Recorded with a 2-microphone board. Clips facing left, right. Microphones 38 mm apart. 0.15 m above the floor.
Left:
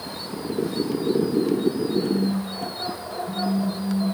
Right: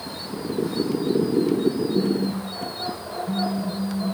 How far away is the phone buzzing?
About 4 m.